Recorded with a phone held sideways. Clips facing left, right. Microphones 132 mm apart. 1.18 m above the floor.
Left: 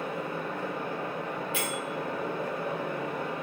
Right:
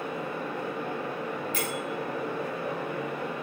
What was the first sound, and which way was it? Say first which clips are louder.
A fan: even; 55° left (ahead or behind).